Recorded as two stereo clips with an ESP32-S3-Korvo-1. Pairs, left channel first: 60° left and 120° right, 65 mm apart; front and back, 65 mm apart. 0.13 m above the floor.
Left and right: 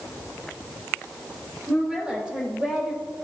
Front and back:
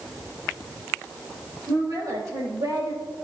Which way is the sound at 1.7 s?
165° left.